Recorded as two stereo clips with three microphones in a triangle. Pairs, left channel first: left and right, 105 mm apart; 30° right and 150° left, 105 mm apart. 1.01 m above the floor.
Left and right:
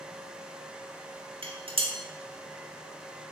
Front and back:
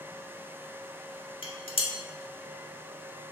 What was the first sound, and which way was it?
Dishes clattering, 60° right.